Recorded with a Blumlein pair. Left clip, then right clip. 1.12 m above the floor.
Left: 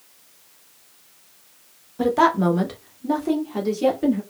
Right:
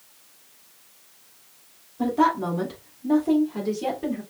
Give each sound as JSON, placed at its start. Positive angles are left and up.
{"t": 2.0, "sound": "a woman speaking", "azimuth_deg": 40, "distance_m": 1.1}